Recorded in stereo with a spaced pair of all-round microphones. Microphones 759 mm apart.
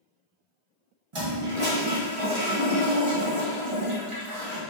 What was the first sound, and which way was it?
A toilet flushing, 40° right (ahead or behind).